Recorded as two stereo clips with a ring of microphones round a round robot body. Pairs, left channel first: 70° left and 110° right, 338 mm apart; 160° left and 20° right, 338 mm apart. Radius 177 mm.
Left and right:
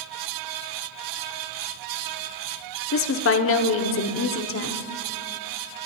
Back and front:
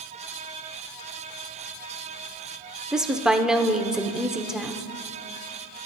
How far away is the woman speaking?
About 1.0 m.